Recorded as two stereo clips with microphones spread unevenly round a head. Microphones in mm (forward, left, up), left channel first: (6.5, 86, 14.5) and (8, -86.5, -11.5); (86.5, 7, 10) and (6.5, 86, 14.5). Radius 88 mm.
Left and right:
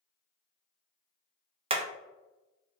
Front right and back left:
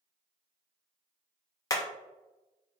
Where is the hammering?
55° right, 0.5 m.